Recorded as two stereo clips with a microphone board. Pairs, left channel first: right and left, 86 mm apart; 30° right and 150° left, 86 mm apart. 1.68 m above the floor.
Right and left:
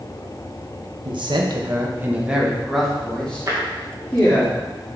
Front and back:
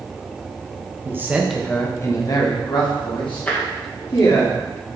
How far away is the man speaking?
About 1.0 m.